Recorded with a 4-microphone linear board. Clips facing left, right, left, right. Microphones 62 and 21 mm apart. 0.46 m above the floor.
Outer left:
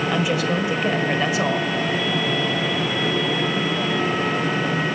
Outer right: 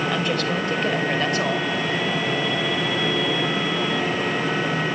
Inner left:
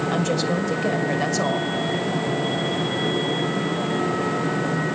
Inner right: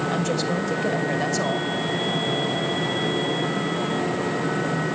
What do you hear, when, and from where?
0.1 s a woman speaking: 5° left (ahead or behind), 1.9 m